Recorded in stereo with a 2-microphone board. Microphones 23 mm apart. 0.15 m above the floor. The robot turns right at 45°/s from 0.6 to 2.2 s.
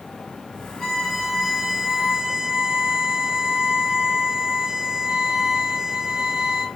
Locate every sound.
0.8 s a violin: 165° left, 1.0 m; by 6.7 s 130° right, 1.0 m